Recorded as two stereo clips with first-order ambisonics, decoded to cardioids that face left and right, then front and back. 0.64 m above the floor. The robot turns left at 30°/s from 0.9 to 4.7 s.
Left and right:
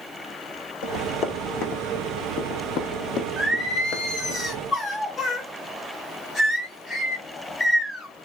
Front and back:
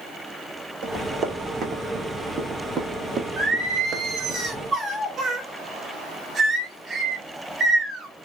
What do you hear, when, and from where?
0.8 s running footsteps: 130° left, 1.7 m; by 4.4 s 120° left, 1.2 m
3.4 s singing: 175° left, 1.2 m; by 8.1 s 135° left, 1.2 m